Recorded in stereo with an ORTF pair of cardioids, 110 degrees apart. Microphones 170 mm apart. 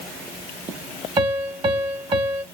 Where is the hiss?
No hiss in this recording.